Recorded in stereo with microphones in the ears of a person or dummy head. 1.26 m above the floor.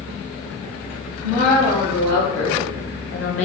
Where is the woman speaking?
80° left, 1.9 m; by 3.5 s 40° left (ahead or behind), 0.5 m.